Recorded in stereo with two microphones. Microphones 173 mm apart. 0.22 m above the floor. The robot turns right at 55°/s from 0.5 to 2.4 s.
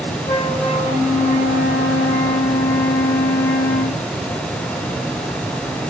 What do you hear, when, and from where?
0.3 s a flute: 55° left, 1.8 m; by 4.0 s 160° left, 1.8 m